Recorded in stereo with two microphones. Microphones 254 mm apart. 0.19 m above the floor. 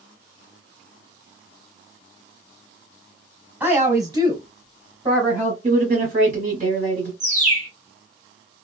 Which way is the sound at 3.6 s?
5° right (ahead or behind).